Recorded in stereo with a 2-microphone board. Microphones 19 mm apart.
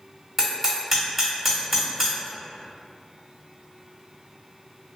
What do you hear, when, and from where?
0.4 s hammering: 15° right (ahead or behind), 1.6 m